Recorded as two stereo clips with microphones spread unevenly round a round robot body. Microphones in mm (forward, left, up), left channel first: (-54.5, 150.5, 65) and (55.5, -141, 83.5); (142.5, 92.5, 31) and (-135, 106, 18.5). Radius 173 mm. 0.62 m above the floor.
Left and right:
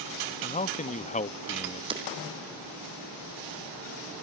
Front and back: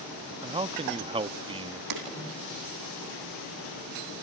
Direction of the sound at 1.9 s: 145° right.